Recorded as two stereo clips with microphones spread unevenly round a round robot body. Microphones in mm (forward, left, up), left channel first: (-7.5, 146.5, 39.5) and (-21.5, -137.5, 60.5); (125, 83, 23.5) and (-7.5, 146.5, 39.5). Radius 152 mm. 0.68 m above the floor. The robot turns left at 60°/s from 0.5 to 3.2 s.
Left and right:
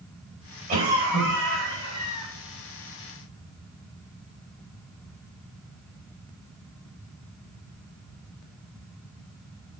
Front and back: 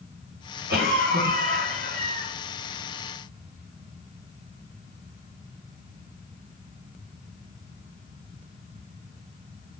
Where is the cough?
160° right, 5 m; by 2.3 s 105° left, 5 m.